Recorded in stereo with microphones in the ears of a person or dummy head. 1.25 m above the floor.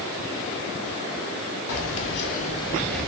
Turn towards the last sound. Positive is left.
turn(degrees=-5)  # may be behind; listen again after turning